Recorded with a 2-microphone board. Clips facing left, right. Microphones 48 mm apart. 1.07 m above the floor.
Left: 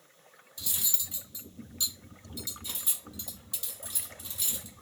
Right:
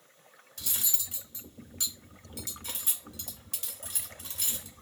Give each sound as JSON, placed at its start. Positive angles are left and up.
{"t": 0.6, "sound": "cutlery clinking", "side_deg": -55, "distance_m": 2.0}